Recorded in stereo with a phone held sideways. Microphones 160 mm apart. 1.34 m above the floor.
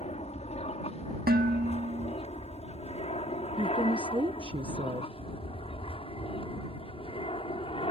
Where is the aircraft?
45° left (ahead or behind); by 7.9 s 35° left (ahead or behind).